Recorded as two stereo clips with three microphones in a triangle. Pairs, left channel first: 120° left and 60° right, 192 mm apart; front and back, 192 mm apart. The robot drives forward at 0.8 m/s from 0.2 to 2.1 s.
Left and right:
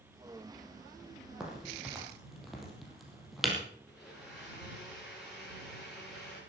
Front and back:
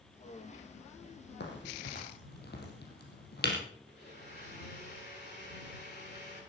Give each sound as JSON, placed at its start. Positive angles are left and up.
{"t": 1.4, "sound": "a crack", "azimuth_deg": 25, "distance_m": 4.5}
{"t": 3.9, "sound": "a blender", "azimuth_deg": 30, "distance_m": 9.5}